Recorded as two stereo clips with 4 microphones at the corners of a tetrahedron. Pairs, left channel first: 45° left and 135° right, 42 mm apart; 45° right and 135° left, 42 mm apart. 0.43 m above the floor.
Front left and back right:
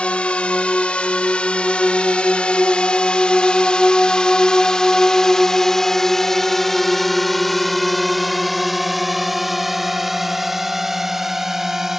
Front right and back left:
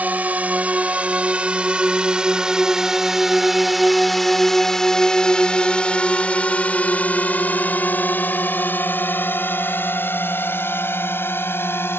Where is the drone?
95° left; by 12.0 s 55° right.